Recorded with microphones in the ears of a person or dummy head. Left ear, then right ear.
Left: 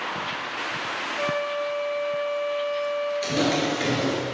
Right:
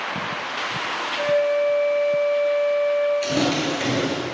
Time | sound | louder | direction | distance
1.2 | a flute | right 8 dB | 60° left (ahead or behind) | 1.1 m
3.2 | footsteps | right 2 dB | 10° left (ahead or behind) | 1.8 m